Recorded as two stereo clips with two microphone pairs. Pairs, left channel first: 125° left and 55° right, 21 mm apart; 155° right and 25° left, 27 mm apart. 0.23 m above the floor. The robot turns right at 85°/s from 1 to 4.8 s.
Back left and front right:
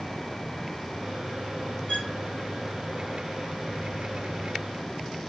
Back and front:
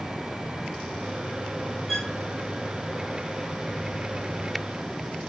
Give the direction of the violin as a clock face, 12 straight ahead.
8 o'clock.